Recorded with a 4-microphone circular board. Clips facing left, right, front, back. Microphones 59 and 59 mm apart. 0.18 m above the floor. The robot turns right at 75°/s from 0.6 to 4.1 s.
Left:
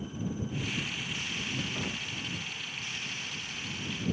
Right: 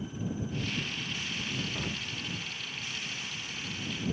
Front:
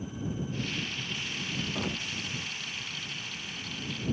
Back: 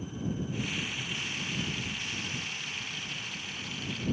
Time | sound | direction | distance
1.8 | an explosion | 5° right | ?